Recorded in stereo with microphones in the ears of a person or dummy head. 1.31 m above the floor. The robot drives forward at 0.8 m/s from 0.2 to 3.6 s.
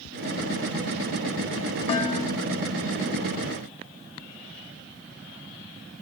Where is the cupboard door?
No cupboard door in this recording.